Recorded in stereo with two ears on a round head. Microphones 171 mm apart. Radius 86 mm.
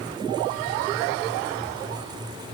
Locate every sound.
Only background noise.